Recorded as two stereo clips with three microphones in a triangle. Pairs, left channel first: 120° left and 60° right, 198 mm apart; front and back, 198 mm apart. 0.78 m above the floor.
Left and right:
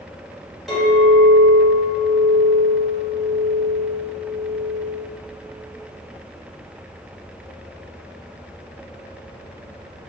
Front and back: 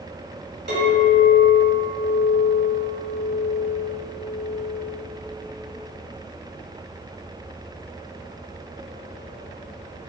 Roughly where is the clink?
Behind right.